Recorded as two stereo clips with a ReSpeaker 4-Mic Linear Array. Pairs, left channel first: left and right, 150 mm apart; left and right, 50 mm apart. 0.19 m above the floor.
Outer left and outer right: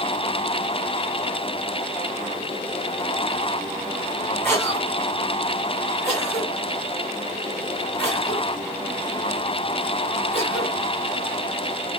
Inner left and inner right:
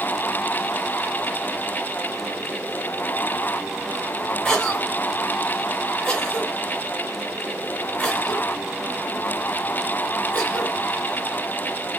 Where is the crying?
No crying in this recording.